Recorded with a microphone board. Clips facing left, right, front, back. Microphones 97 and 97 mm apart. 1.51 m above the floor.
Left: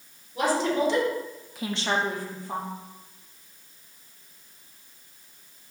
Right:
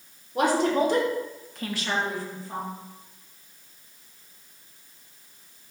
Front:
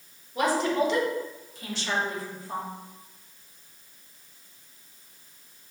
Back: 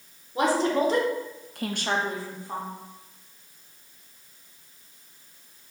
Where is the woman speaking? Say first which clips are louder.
Right 2 dB, back 2 dB; 120° right, 1.3 m; by 2.7 s 105° left, 1.2 m.